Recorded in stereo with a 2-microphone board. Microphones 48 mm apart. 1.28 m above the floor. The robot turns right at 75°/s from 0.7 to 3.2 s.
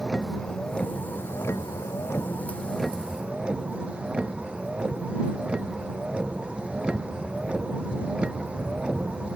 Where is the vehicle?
15° left; by 9.4 s 155° right.